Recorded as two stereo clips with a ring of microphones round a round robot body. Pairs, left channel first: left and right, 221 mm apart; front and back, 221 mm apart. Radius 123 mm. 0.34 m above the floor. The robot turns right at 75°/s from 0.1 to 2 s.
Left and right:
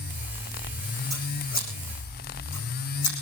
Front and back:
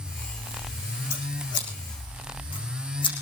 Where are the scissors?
Straight ahead, 6.5 m; by 3.1 s 65° left, 6.5 m.